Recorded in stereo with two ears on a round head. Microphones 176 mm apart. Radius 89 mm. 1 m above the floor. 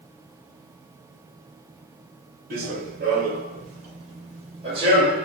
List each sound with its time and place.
2.5 s running footsteps: 50° right (ahead or behind), 1.4 m; by 5.2 s 20° right (ahead or behind), 2.0 m